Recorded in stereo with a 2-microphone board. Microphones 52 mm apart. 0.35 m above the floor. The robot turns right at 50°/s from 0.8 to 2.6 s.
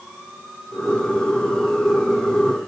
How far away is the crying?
I don't hear crying.